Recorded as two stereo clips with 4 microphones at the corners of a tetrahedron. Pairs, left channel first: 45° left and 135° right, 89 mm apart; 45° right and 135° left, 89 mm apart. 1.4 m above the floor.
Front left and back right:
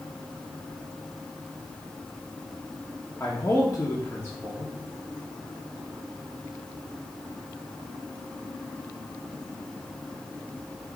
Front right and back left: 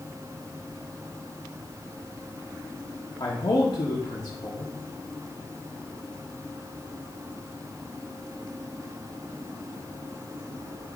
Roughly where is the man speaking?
Ahead right.